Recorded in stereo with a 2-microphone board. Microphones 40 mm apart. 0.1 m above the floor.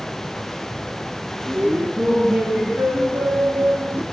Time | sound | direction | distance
1.4 | laughter | 70° right (ahead or behind) | 5 m